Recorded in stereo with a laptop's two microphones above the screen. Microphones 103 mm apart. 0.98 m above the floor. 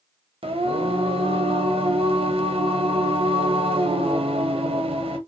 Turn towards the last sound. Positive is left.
turn(degrees=-65)  # may be behind; listen again after turning